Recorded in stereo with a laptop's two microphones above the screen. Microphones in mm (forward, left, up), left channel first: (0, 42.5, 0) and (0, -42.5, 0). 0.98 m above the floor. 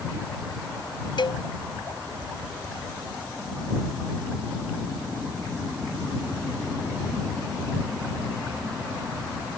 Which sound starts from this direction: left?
A cowbell, at 1.2 s.